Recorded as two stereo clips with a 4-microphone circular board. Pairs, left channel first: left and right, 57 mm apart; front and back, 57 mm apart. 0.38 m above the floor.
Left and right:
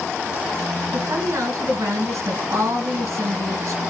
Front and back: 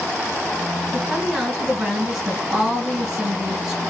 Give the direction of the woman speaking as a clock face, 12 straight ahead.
4 o'clock.